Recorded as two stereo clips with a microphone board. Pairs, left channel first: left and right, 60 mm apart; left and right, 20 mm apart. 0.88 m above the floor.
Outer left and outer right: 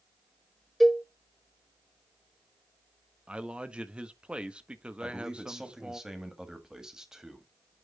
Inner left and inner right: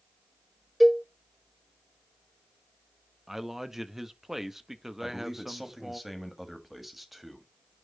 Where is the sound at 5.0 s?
10° right (ahead or behind), 1.6 m.